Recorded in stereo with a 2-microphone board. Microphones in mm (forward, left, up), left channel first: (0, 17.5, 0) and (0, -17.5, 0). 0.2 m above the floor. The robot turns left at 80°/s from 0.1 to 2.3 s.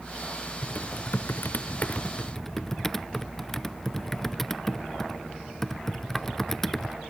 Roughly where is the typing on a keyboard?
Left.